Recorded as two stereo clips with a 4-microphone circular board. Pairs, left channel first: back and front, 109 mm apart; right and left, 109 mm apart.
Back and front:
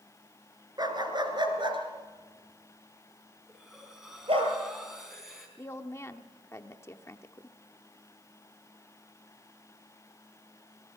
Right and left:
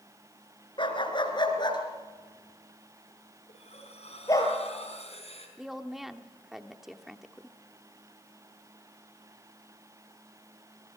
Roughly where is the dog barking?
Ahead right.